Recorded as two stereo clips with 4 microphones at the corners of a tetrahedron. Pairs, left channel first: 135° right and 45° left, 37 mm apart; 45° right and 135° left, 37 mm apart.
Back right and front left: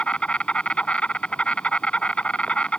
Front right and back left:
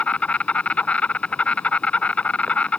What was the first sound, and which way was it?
An insect, 85° right.